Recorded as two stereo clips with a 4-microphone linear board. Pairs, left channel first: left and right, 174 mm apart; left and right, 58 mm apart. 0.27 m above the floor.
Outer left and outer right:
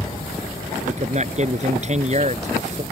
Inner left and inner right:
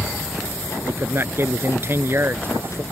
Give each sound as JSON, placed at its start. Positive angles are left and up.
{"t": 0.9, "sound": "a man speaking", "side_deg": -40}